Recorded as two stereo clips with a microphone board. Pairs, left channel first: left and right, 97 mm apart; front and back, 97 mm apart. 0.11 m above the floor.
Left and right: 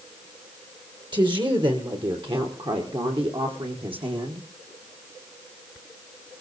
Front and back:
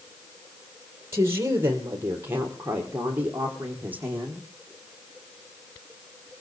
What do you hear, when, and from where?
1.1 s a woman speaking: 120° right, 3.5 m; by 4.5 s 105° right, 5 m